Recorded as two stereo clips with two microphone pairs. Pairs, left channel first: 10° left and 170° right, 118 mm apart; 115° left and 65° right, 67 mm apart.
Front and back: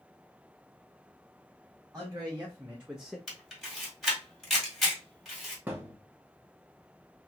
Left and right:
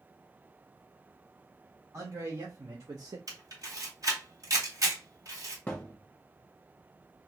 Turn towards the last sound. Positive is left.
turn(degrees=135)